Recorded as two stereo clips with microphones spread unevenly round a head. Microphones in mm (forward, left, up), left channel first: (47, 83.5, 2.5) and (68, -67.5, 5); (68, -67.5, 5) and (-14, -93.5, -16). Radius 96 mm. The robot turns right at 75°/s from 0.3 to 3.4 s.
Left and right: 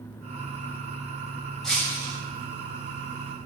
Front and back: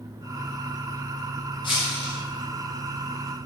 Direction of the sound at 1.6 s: 10° left.